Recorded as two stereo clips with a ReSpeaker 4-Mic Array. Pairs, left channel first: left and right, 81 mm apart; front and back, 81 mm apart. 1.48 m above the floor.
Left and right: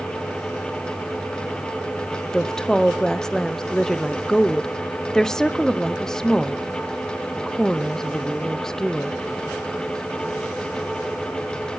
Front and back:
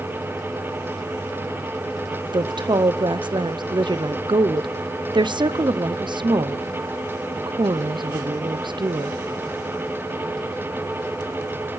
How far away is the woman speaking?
About 0.5 m.